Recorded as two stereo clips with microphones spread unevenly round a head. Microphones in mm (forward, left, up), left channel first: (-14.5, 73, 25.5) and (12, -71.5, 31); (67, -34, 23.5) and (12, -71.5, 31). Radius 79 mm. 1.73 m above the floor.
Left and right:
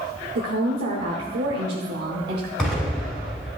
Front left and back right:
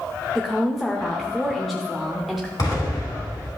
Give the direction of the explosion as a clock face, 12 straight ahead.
12 o'clock.